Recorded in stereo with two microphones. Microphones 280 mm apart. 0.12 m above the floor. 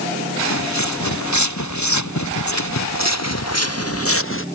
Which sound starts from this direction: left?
Footsteps, at 0.4 s.